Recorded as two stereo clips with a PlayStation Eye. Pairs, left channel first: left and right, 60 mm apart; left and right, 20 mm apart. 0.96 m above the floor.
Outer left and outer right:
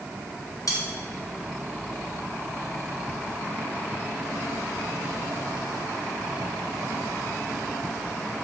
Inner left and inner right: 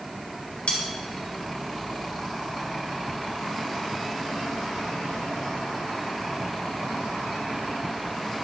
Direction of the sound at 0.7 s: 85° left.